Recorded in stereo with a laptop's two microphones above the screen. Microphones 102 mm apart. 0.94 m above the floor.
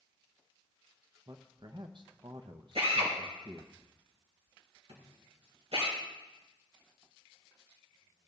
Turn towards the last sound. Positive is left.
turn(degrees=-80)